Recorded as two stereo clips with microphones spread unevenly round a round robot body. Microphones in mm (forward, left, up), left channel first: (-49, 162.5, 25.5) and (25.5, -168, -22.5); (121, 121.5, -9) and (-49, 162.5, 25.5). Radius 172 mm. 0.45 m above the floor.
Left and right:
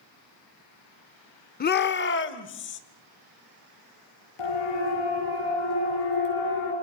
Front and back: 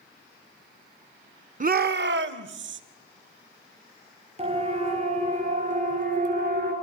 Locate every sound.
1.6 s a shout: 160° left, 1.0 m
4.4 s a siren: 110° left, 8.5 m; by 6.7 s 135° left, 6.5 m